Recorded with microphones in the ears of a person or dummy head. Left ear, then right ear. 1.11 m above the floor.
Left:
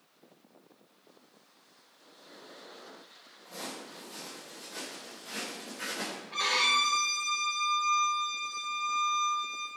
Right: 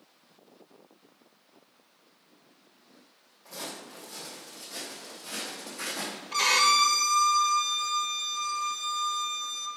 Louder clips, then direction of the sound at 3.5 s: Right 2 dB; 15° right (ahead or behind).